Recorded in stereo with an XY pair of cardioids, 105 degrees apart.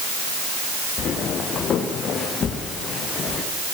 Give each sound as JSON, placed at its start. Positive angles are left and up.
{"t": 1.0, "sound": "footsteps", "azimuth_deg": 55, "distance_m": 6.5}